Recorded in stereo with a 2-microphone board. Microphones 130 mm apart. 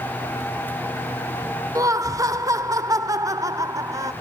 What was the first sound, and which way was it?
Laughter, 25° right (ahead or behind).